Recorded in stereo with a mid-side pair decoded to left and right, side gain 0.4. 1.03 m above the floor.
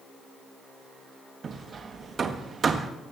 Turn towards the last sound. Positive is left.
turn(degrees=-50)